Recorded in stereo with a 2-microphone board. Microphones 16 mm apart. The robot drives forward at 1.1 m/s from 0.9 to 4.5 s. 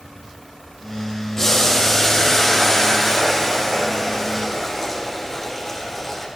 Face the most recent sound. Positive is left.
turn(degrees=20)  # may be behind; listen again after turning